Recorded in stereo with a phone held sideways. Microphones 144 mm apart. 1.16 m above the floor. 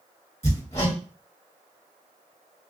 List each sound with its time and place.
0.4 s hammering: 45° left (ahead or behind), 1.2 m